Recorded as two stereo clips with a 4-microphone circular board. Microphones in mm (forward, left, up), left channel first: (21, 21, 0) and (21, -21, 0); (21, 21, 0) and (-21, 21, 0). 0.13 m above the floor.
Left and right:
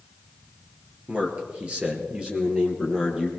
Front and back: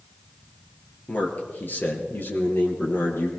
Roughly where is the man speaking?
Ahead right.